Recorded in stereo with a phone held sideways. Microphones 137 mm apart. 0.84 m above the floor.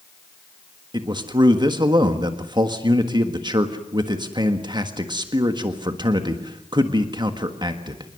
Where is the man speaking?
35° right (ahead or behind), 1.5 m.